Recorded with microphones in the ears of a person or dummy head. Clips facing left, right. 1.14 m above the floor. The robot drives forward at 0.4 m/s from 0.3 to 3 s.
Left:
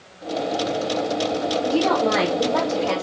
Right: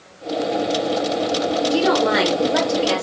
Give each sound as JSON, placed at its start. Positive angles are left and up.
{"t": 1.6, "sound": "a woman speaking", "side_deg": -20, "distance_m": 0.5}